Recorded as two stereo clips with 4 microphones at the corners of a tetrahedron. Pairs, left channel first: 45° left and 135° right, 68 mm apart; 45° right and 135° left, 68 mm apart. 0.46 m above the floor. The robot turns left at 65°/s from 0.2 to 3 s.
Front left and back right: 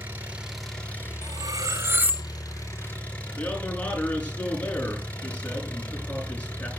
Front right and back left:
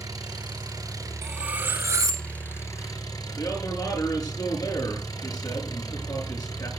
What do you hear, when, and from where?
0.0 s an engine running: 160° left, 3.5 m; by 6.8 s 20° right, 3.5 m
1.2 s cutlery clinking: 135° right, 1.7 m; by 2.3 s 155° left, 1.7 m
3.4 s a man speaking: 25° right, 7.5 m